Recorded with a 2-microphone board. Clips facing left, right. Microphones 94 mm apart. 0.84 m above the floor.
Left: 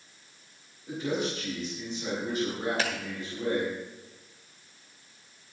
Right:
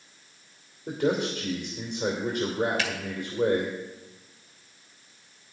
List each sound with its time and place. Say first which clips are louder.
0.9 s a man speaking: right 5 dB; 65° right (ahead or behind), 2.5 m
2.8 s a finger snap: left 1 dB; 35° left (ahead or behind), 1.9 m